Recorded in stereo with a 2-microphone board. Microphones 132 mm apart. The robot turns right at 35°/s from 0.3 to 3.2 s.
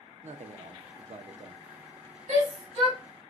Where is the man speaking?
100° right, 0.7 m; by 1.7 s 50° right, 0.7 m.